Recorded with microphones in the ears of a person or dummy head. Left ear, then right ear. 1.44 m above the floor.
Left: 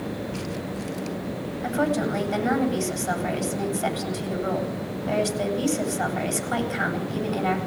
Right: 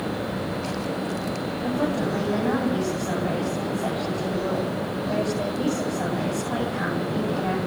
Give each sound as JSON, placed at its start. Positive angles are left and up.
{"t": 1.6, "sound": "a woman speaking", "side_deg": 45, "distance_m": 10.0}